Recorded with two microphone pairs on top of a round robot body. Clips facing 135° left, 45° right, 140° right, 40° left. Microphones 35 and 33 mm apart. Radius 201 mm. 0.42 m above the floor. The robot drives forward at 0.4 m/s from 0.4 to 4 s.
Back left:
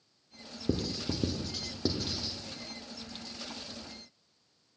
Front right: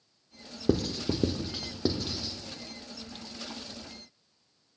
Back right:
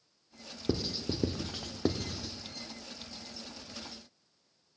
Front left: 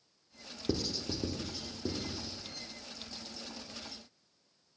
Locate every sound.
0.7 s writing: 70° right, 0.5 m; by 2.3 s 135° right, 0.7 m